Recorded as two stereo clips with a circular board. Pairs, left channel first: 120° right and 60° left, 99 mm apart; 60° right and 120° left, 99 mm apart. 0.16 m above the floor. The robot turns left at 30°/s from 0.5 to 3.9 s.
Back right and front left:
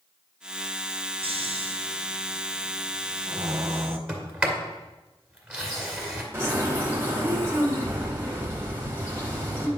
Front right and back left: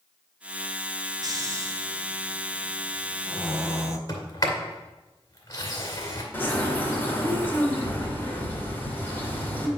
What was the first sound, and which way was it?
Snoring, 75° left.